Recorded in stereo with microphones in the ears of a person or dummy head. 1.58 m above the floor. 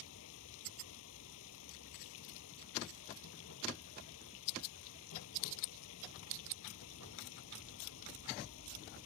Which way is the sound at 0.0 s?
80° left.